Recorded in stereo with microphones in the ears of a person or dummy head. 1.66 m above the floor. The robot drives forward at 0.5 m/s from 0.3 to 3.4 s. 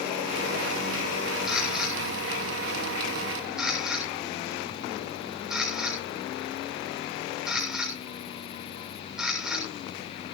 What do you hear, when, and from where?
1.5 s a camera shutter: centre (ahead or behind), 6 m